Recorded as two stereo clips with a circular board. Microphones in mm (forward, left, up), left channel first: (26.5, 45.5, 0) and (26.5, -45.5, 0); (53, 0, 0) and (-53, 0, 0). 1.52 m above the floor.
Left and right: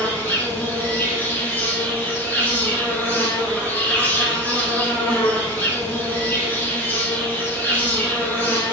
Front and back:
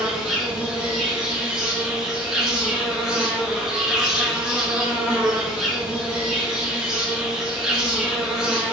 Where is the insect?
110° left, 0.8 m.